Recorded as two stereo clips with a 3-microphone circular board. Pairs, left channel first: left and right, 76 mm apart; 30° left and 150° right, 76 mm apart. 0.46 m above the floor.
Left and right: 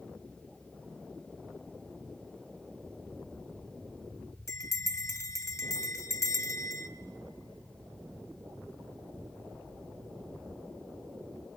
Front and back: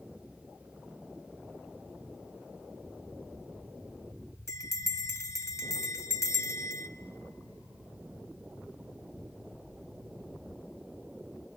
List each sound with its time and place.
4.5 s a bell: 60° left, 1.1 m